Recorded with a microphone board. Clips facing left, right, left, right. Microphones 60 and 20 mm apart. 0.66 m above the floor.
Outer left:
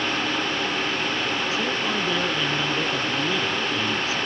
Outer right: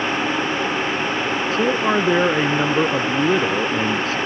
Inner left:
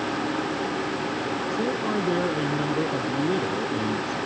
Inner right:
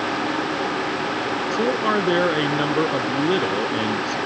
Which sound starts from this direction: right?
A man speaking, at 1.5 s.